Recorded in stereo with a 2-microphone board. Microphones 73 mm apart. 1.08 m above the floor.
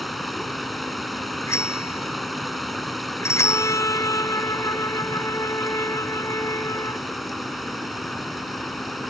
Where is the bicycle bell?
45° left (ahead or behind).